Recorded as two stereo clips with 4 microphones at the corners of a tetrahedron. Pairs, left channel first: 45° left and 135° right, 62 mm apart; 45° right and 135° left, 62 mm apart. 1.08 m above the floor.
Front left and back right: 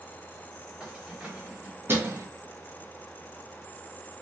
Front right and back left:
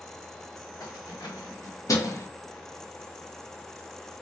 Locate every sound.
0.8 s keys jangling: 60° right, 1.3 m; by 2.3 s 95° right, 0.6 m